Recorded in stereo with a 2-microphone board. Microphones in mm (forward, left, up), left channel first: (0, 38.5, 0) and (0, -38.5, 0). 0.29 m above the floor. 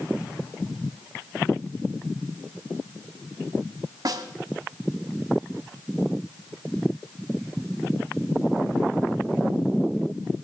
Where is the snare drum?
60° right (ahead or behind), 1.1 m.